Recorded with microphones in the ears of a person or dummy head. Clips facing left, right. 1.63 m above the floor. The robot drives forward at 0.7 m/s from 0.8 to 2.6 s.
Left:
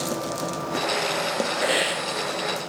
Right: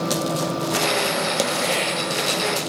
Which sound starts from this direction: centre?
A hiss, at 1.6 s.